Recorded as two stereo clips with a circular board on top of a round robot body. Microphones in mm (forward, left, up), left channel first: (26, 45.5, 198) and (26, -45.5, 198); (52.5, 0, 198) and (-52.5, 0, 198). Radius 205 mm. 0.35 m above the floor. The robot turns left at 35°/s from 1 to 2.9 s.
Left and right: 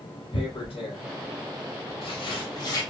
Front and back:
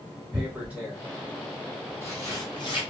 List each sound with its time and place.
0.3 s tearing paper: 100° left, 0.7 m; by 2.8 s 40° left, 0.7 m